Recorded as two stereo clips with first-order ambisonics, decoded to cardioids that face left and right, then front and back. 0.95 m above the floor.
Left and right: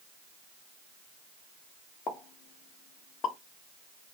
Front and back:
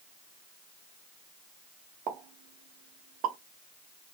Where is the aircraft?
No aircraft in this recording.